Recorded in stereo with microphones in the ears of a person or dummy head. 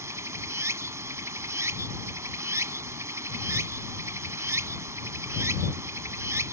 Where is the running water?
15° right (ahead or behind).